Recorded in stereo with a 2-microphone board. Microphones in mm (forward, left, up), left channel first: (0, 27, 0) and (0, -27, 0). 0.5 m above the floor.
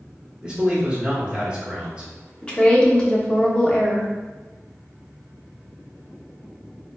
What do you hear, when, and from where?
0.4 s a man speaking: 20° right (ahead or behind), 1.1 m
2.4 s a woman speaking: 20° left (ahead or behind), 0.7 m